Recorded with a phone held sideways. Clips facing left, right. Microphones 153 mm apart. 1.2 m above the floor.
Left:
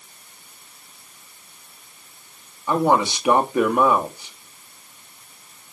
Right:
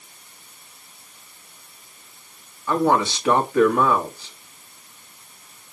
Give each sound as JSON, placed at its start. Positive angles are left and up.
{"t": 2.7, "sound": "a man speaking", "side_deg": 15, "distance_m": 2.0}